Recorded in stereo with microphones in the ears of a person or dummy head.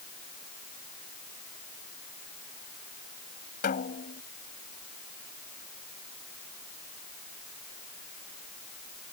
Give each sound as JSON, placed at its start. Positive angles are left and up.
{"t": 3.6, "sound": "a snare drum", "side_deg": 40}